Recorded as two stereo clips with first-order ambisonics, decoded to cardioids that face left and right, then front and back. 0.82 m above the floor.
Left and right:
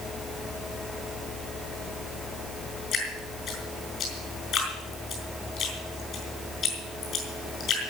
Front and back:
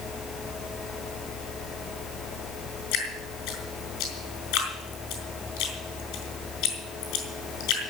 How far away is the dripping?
About 5 m.